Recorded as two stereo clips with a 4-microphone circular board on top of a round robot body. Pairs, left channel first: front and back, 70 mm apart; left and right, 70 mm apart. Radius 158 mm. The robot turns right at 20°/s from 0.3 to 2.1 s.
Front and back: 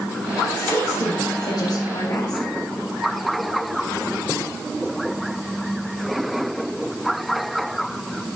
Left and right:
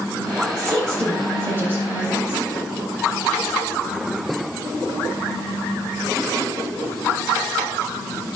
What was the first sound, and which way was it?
A woman speaking, 55° right.